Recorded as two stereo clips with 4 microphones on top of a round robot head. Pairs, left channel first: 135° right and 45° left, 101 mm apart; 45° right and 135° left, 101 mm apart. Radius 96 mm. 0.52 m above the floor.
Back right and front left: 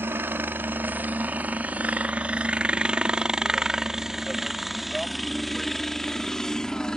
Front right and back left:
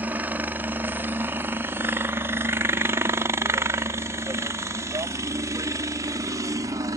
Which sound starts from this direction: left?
A helicopter, at 0.0 s.